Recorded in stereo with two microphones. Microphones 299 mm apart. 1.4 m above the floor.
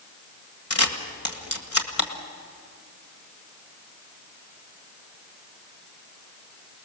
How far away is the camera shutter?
About 1.7 m.